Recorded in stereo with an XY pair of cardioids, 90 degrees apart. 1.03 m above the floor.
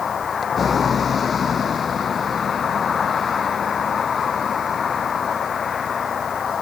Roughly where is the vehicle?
Ahead left.